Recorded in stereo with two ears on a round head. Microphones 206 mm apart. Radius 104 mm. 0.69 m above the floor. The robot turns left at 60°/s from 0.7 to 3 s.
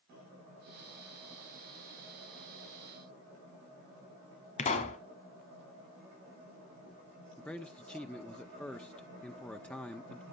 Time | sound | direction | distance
4.6 | a pop | 30° left (ahead or behind) | 1.5 m
7.4 | a man speaking | 5° left (ahead or behind) | 0.7 m